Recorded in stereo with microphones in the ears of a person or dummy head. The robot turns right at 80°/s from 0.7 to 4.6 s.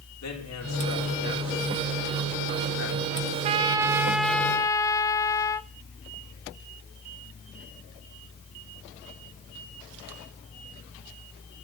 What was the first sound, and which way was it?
A man speaking, 95° left.